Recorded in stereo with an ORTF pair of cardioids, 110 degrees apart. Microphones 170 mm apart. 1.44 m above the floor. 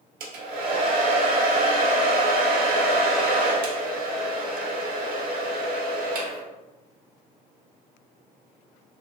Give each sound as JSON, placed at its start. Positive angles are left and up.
{"t": 0.2, "sound": "a hair dryer", "azimuth_deg": -65, "distance_m": 0.7}